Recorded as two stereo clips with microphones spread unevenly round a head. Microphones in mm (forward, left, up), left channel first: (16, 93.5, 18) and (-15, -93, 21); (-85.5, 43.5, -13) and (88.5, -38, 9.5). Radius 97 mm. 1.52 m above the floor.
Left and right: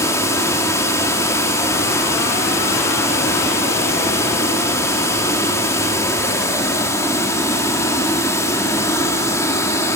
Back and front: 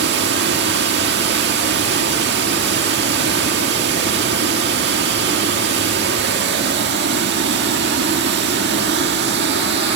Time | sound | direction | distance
0.0 | running water | 5° left | 2 m